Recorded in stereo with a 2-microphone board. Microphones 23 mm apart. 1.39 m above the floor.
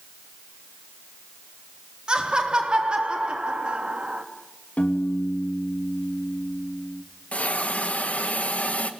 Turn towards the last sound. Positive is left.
turn(degrees=75)  # may be behind; listen again after turning